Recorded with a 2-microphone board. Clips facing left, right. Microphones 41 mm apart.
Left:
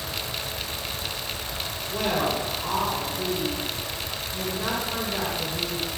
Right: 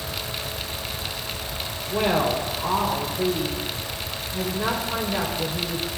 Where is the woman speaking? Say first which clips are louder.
Right 4 dB; 20° right (ahead or behind), 1.4 m.